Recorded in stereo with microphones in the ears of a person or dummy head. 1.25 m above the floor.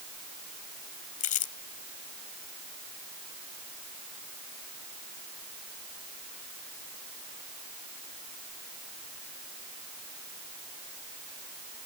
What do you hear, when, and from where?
1.2 s crumpling: 35° left (ahead or behind)